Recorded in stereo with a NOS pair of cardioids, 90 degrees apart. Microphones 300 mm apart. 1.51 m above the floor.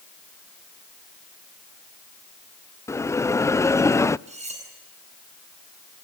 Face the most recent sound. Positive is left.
turn(degrees=-20)